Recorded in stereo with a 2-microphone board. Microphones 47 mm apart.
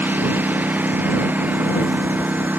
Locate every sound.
0.0 s a lawn mower: 40° right (ahead or behind)